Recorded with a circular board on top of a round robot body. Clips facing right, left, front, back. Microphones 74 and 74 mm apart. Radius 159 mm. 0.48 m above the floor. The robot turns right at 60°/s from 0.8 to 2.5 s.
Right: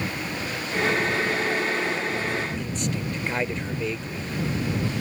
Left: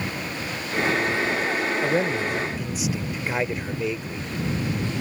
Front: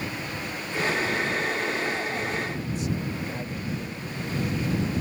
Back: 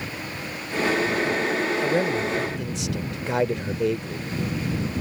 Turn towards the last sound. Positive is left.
turn(degrees=175)